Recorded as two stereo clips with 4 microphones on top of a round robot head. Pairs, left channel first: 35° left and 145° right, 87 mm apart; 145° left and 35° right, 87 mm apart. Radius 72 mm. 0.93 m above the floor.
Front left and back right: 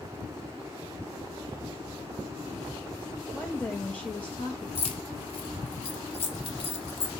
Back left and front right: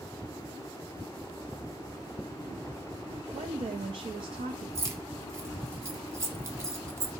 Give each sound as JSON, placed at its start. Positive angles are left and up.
{"t": 3.3, "sound": "a woman speaking", "azimuth_deg": -40, "distance_m": 0.7}
{"t": 4.8, "sound": "keys jangling", "azimuth_deg": 20, "distance_m": 1.3}